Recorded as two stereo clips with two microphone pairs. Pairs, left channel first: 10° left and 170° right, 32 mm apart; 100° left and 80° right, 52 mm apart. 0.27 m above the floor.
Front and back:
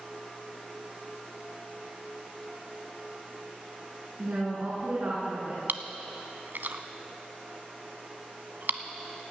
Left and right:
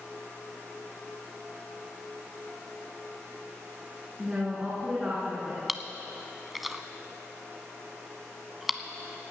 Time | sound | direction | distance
4.2 | a woman speaking | 155° right | 3 m
5.7 | chewing | 170° right | 0.7 m